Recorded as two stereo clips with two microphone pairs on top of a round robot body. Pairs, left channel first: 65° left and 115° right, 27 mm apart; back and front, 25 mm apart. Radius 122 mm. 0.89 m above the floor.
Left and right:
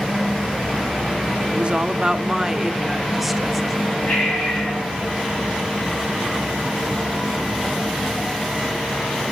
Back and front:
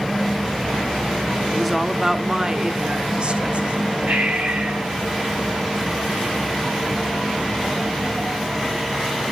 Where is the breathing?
20° left, 3.5 m.